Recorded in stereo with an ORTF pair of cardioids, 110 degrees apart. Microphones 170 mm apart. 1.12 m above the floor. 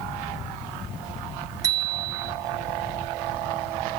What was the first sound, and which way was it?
A bicycle bell, 20° right.